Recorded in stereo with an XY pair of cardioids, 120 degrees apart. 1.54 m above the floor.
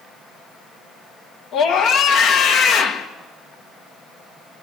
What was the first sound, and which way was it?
A scream, 60° left.